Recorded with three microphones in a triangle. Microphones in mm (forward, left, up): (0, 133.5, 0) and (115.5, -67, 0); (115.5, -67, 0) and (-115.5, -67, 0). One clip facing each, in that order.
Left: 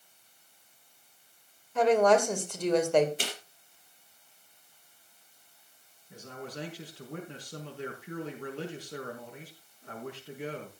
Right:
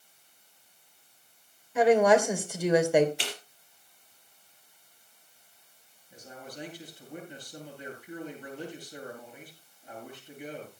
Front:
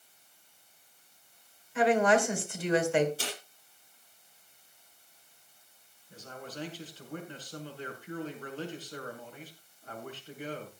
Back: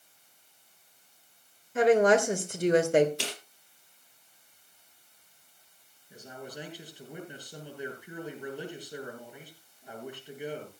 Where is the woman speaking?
140° right, 2.5 m.